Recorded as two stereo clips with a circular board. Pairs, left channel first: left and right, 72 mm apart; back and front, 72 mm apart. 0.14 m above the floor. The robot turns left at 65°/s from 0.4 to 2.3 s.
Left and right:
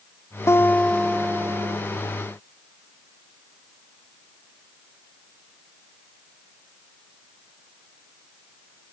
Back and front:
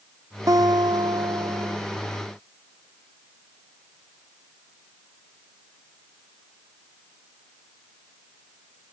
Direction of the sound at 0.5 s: 40° left.